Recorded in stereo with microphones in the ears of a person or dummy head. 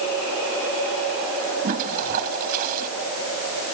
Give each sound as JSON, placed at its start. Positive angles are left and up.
{"t": 1.6, "sound": "a toilet flushing", "side_deg": -45}